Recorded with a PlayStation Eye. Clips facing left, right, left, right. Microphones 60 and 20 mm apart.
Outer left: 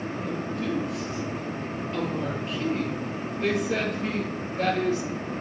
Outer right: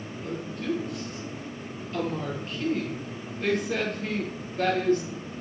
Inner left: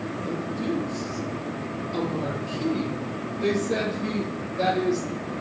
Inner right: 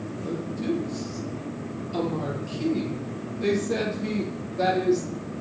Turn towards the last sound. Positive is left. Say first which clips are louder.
# outer right 1 dB, inner right 1 dB
turn(degrees=0)  # may be behind; listen again after turning